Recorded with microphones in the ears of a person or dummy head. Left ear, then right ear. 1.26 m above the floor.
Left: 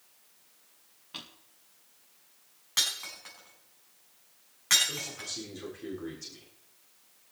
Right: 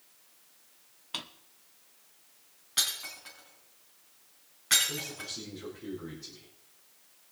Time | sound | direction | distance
1.1 | a drawer | 25° right (ahead or behind) | 1.0 m
2.8 | breaking glass | 30° left (ahead or behind) | 5 m
4.9 | a man speaking | 70° left (ahead or behind) | 3.5 m